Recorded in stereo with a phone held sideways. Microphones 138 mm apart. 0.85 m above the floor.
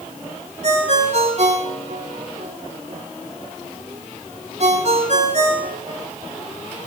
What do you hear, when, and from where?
0.6 s a ringtone: 55° right (ahead or behind), 2 m